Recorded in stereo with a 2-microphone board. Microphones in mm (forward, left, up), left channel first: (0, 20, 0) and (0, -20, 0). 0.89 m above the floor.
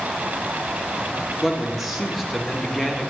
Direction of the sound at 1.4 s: 5° right (ahead or behind).